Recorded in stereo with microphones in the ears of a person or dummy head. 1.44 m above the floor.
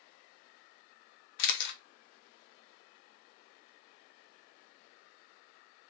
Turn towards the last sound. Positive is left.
turn(degrees=65)  # may be behind; listen again after turning